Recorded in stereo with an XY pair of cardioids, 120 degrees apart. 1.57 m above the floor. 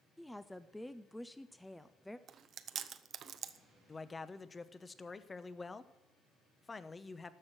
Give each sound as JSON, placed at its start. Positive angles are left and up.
{"t": 0.2, "sound": "a woman speaking", "azimuth_deg": 5, "distance_m": 0.6}
{"t": 2.3, "sound": "chewing", "azimuth_deg": -50, "distance_m": 0.7}
{"t": 3.9, "sound": "a man speaking", "azimuth_deg": 20, "distance_m": 0.9}